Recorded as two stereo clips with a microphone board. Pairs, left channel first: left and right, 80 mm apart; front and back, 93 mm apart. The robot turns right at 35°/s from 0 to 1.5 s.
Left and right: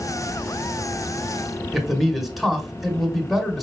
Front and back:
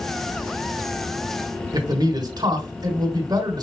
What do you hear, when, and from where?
1.7 s a man speaking: straight behind, 1.6 m